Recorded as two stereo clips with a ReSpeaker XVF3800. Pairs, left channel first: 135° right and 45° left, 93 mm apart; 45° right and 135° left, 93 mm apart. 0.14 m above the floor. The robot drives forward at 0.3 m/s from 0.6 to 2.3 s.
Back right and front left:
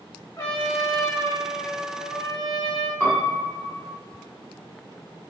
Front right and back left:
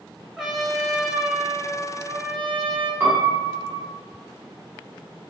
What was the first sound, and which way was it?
A trumpet, 140° right.